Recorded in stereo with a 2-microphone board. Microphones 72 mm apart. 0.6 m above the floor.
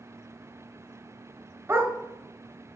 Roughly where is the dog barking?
Right.